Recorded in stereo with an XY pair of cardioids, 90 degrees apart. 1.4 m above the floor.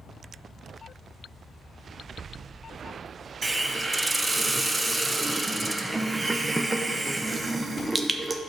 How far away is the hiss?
About 0.6 m.